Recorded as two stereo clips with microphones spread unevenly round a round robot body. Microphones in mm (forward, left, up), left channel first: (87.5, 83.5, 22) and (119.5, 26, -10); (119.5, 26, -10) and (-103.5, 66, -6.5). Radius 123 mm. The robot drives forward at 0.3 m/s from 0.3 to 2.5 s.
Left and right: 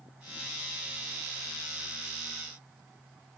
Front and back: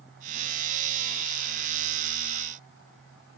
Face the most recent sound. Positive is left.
No sound to turn to.